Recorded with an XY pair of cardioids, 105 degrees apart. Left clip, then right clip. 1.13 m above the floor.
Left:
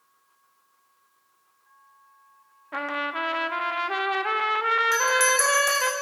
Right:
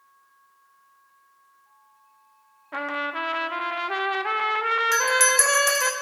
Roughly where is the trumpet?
Ahead.